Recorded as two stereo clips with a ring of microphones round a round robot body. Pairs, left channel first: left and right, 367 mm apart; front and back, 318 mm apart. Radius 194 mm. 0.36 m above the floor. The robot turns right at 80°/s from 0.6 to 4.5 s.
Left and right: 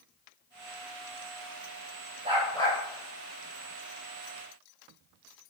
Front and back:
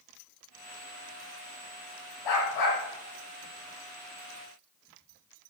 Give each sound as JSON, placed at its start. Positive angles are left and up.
{"t": 2.2, "sound": "a dog barking", "azimuth_deg": -20, "distance_m": 5.5}